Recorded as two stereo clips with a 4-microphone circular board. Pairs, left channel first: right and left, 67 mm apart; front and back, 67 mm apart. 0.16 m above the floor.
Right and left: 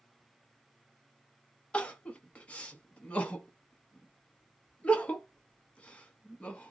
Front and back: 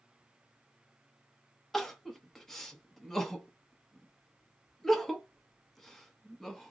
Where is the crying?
75° right, 0.7 m.